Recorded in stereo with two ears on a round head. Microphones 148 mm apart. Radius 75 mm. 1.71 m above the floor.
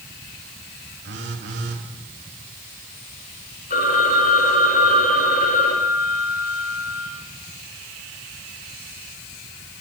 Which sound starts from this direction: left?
A phone ringing, at 3.7 s.